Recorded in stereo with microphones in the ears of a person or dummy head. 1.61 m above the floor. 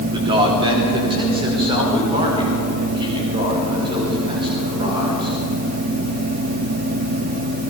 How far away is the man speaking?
About 3 m.